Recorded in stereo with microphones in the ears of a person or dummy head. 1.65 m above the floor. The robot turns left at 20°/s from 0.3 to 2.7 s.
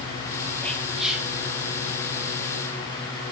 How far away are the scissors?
No scissors in this recording.